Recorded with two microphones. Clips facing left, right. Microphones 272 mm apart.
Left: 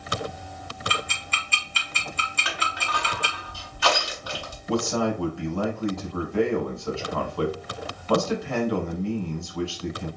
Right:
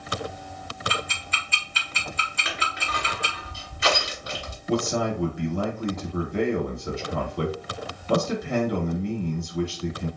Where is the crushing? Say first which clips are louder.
Even; 25° right (ahead or behind), 1.3 m.